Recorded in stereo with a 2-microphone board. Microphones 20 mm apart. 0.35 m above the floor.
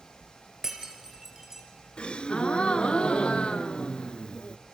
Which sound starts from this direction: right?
Breaking glass, at 0.6 s.